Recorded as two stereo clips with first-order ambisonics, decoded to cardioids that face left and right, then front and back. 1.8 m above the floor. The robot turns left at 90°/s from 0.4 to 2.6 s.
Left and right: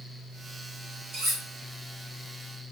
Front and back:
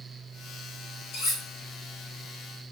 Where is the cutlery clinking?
25° right, 1.8 m; by 1.4 s 50° right, 1.8 m.